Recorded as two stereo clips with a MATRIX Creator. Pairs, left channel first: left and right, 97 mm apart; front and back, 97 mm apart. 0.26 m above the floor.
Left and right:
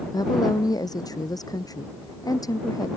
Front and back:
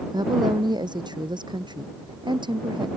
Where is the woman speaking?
135° left; by 2.9 s 140° left.